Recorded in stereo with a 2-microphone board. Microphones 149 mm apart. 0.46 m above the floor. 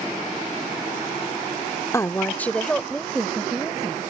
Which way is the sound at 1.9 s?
20° left (ahead or behind).